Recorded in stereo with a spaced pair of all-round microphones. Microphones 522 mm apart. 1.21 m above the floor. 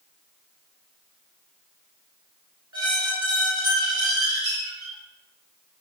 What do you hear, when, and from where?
2.7 s a squeak: 30° right (ahead or behind), 3 m